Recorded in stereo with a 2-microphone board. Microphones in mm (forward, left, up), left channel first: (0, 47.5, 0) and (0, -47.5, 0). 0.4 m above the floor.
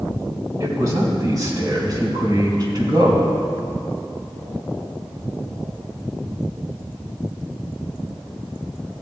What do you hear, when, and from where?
0.6 s a man speaking: 35° right (ahead or behind), 3.5 m; by 3.3 s 50° right (ahead or behind), 2.5 m